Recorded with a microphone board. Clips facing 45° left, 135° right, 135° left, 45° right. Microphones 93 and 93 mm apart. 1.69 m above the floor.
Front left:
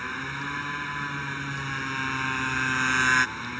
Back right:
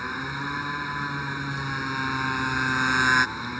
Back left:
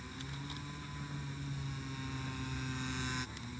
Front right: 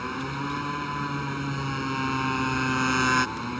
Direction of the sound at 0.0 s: 60° right.